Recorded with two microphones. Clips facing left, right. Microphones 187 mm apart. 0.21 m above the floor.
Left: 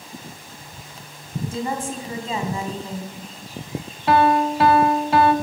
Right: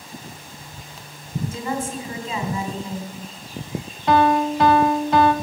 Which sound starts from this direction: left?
A woman speaking, at 1.4 s.